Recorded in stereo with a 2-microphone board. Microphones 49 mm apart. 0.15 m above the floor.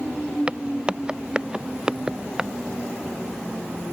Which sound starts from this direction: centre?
Footsteps, at 0.5 s.